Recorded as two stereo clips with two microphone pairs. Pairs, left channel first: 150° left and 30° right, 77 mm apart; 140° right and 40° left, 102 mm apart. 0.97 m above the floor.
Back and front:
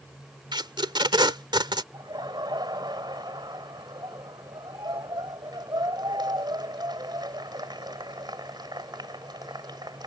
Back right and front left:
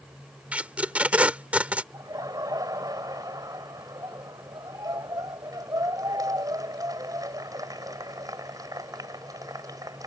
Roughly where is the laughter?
Ahead.